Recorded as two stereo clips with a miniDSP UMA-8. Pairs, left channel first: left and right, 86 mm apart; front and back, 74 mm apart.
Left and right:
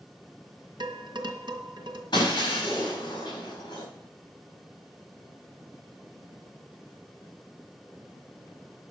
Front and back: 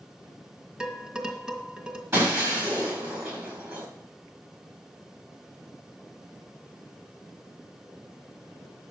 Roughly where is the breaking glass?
Behind left.